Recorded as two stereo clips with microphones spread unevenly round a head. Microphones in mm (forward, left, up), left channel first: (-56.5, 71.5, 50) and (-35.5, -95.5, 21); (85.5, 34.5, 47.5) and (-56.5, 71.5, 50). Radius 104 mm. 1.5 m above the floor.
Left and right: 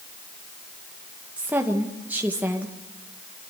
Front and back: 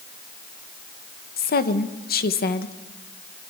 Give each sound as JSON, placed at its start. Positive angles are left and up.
{"t": 1.4, "sound": "a woman speaking", "azimuth_deg": 0, "distance_m": 1.9}